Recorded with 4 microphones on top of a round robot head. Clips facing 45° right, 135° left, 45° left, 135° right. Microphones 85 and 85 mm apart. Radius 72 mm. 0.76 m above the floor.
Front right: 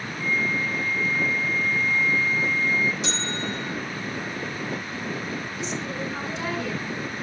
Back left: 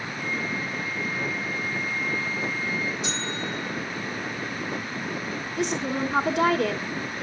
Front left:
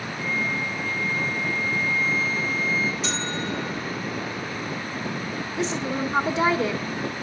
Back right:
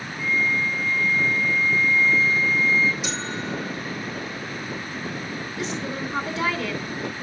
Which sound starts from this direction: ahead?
A flute, at 0.2 s.